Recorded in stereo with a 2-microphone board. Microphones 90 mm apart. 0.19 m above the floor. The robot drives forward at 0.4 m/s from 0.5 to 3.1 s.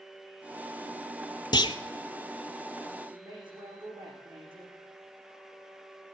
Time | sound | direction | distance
1.5 | a clunk | 55° left (ahead or behind) | 0.9 m
3.1 | a woman speaking | 60° right (ahead or behind) | 10 m